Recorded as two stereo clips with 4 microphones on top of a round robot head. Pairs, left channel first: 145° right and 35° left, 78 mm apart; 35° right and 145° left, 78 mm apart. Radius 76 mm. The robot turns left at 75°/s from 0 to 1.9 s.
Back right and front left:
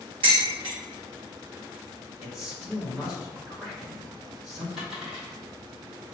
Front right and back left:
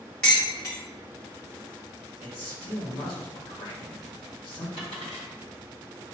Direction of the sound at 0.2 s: 45° left.